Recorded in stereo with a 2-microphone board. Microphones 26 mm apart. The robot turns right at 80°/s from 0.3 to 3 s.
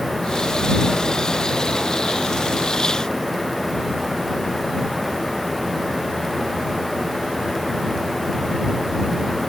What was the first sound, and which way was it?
Only background noise.